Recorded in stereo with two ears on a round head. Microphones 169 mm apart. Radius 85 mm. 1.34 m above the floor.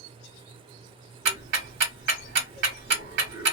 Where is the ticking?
60° right (ahead or behind), 1.7 m.